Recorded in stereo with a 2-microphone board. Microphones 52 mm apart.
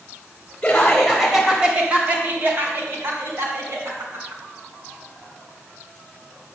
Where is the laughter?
25° left (ahead or behind), 1.0 m; by 4.4 s 65° right (ahead or behind), 2.5 m.